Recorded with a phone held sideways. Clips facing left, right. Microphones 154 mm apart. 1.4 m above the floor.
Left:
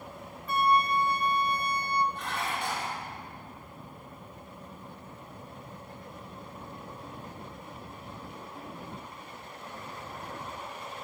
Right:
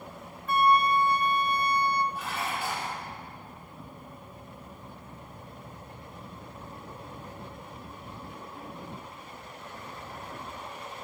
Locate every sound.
0.5 s a flute: 50° right (ahead or behind), 0.6 m
2.1 s dishes clattering: 5° right (ahead or behind), 2.5 m